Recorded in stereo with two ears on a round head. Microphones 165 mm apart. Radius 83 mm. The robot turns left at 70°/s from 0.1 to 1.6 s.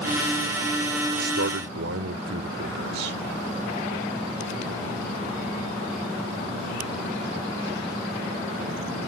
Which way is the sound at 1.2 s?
60° right (ahead or behind).